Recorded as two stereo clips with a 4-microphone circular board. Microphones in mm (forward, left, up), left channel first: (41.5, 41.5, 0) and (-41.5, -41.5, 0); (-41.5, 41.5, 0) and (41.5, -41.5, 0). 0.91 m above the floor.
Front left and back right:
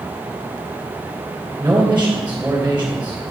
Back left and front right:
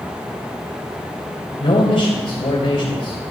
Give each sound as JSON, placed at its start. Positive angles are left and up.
{"t": 1.6, "sound": "a man speaking", "azimuth_deg": 155, "distance_m": 3.5}